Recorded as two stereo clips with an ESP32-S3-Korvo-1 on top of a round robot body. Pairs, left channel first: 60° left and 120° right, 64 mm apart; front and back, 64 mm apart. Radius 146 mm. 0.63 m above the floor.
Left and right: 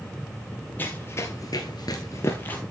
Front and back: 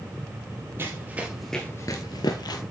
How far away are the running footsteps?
About 1.3 m.